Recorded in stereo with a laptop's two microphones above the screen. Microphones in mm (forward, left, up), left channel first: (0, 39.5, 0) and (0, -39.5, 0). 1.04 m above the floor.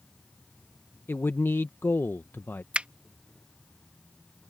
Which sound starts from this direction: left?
A man speaking, at 1.1 s.